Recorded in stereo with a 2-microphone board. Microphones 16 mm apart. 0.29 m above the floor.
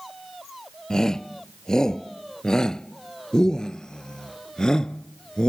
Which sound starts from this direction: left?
A shout, at 0.9 s.